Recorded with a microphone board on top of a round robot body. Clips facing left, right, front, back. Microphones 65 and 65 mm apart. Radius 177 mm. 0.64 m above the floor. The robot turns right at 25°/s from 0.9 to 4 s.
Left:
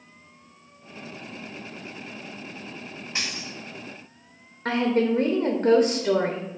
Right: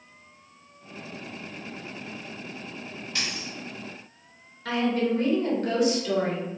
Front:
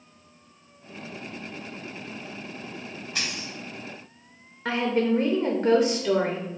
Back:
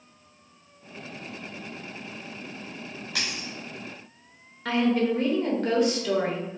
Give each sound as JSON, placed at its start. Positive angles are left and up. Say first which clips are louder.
{"t": 3.1, "sound": "a dropped coin", "louder": "left 1 dB, even", "azimuth_deg": 160, "distance_m": 0.5}
{"t": 4.7, "sound": "a woman speaking", "louder": "left 3 dB, even", "azimuth_deg": 65, "distance_m": 0.8}